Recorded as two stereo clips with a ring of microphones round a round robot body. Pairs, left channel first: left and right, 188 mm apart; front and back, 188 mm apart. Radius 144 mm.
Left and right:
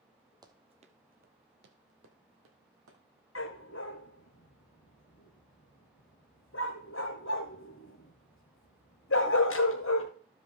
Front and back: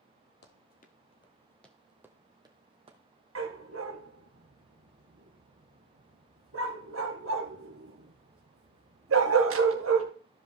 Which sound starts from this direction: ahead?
Running footsteps, at 0.4 s.